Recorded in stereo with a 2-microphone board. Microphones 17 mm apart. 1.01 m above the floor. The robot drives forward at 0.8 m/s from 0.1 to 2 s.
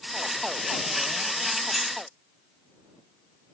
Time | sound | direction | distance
1.7 | keys jangling | 15° right (ahead or behind) | 1.3 m